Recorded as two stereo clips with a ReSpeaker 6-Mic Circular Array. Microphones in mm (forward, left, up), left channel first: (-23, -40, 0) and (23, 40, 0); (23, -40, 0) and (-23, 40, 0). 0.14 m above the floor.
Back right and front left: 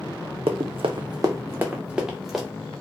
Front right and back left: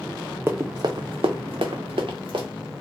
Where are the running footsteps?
55° left, 0.5 m; by 2.5 s 145° left, 1.1 m.